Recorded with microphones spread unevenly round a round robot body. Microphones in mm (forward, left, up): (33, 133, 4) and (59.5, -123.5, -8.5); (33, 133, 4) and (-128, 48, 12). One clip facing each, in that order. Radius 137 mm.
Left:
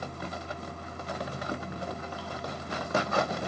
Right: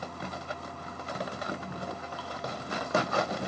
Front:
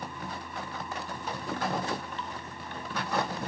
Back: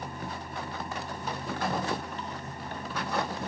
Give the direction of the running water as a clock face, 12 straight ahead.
7 o'clock.